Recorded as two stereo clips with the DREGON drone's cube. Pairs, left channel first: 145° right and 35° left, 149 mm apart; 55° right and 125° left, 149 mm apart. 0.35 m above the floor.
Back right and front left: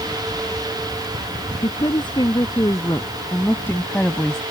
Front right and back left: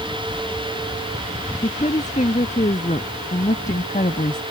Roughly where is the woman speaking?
Right.